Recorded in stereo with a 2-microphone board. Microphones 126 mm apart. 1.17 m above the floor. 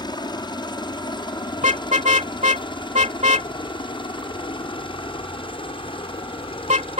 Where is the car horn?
75° right (ahead or behind).